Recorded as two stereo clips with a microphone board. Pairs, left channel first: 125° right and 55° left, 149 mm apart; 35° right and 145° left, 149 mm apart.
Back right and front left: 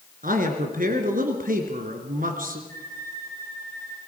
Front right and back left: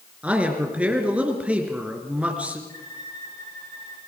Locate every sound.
0.2 s a man speaking: 65° left, 3 m
2.7 s a violin: 35° left, 5.5 m